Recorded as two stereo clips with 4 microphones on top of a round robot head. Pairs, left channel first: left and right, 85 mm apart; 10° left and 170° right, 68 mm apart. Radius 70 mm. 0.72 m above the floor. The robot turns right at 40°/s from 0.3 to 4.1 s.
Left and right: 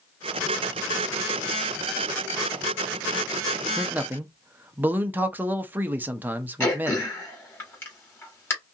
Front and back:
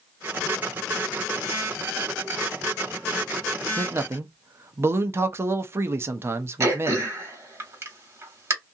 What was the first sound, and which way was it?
A man speaking, 160° right.